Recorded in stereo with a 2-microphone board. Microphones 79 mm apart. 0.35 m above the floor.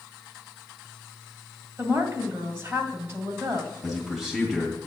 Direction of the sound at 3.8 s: 5° right (ahead or behind).